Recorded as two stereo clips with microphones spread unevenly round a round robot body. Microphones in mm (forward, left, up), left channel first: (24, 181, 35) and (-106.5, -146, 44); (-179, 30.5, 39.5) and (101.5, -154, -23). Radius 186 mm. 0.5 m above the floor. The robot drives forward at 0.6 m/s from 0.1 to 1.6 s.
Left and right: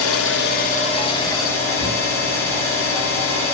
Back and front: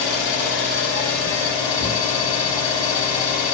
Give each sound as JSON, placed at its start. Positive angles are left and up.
{"t": 0.0, "sound": "an engine running", "azimuth_deg": 115, "distance_m": 0.8}